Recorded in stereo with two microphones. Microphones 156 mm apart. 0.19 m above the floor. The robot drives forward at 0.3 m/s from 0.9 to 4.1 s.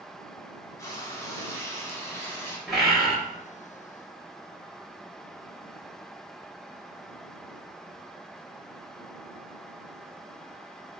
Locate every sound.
0.8 s frying: 20° left (ahead or behind), 0.9 m; by 2.6 s 15° left (ahead or behind), 1.3 m
2.7 s a bird: centre (ahead or behind), 1.7 m